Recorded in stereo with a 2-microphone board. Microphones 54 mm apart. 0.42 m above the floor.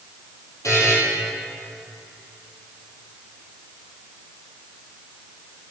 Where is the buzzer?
70° left (ahead or behind), 2.5 m.